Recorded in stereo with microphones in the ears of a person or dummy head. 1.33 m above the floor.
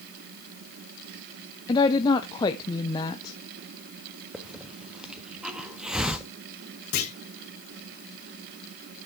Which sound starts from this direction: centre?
A hiss, at 4.3 s.